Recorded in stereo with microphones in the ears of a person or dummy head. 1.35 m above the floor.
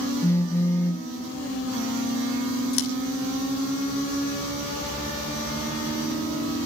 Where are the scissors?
70° left (ahead or behind), 2 m.